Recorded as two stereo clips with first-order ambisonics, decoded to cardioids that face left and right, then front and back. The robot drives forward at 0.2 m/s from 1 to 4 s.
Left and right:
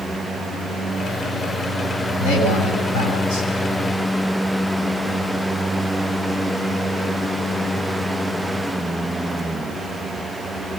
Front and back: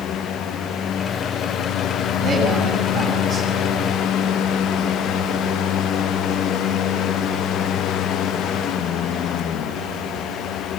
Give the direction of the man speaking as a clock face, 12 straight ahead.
8 o'clock.